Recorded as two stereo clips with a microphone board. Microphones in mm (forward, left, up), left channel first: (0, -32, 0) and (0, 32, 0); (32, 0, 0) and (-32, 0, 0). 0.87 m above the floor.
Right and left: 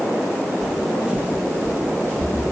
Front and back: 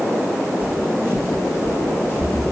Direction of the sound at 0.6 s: 175° right.